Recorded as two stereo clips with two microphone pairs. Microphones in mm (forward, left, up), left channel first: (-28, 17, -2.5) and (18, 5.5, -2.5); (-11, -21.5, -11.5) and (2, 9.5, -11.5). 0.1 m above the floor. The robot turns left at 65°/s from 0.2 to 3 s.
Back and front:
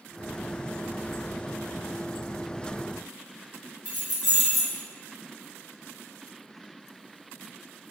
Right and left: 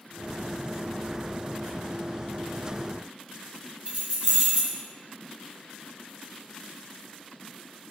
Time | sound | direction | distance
3.9 | keys jangling | 70° left | 1.3 m